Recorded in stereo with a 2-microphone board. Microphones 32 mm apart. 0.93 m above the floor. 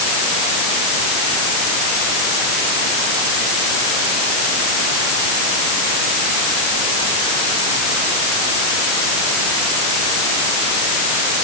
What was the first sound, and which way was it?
Only background noise.